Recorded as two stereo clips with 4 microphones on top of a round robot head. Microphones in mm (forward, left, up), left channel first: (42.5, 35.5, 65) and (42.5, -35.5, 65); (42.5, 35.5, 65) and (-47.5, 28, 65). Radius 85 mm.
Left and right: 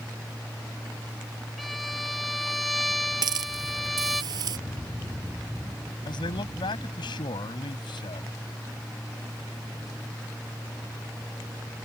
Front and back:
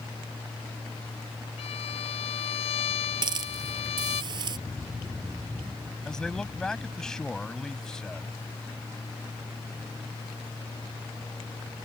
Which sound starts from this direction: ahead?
A violin, at 1.6 s.